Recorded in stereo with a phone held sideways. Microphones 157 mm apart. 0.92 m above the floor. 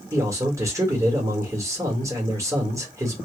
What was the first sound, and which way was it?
A man speaking, 20° right (ahead or behind).